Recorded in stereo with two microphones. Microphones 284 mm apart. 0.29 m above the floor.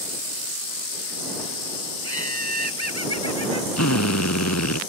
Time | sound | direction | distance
2.0 | laughter | 55° left (ahead or behind) | ?
3.8 | a drill | 75° left (ahead or behind) | ?